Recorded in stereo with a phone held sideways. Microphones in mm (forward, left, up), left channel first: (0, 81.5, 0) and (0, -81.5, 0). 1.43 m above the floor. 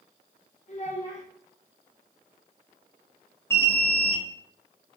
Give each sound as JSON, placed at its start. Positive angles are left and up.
{"t": 0.7, "sound": "a child speaking", "side_deg": 45, "distance_m": 0.7}
{"t": 3.5, "sound": "an alarm", "side_deg": 15, "distance_m": 0.5}